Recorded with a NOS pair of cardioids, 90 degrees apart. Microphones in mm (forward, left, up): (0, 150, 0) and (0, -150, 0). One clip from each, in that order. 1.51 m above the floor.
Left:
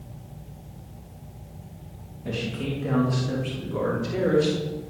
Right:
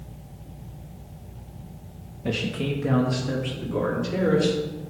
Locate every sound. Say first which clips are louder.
2.2 s a man speaking: right 3 dB; 45° right, 1.5 m; by 4.6 s 10° right, 4.5 m